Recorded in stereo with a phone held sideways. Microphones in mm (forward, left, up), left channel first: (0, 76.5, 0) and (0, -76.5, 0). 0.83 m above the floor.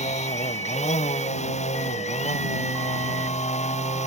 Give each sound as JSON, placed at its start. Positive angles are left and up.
{"t": 0.0, "sound": "a machine running", "side_deg": 50}